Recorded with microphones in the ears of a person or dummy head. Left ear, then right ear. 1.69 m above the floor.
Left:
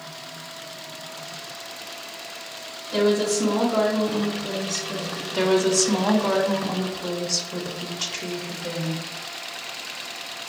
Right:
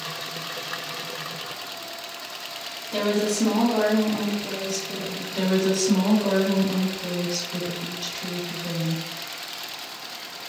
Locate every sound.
2.9 s a woman speaking: 10° right (ahead or behind), 1.5 m
5.3 s a woman speaking: 60° left (ahead or behind), 1.1 m